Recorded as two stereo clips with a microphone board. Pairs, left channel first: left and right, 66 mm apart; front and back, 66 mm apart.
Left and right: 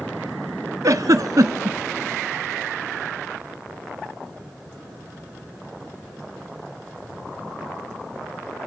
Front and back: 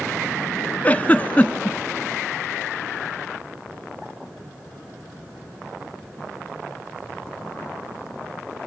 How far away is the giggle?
About 0.5 m.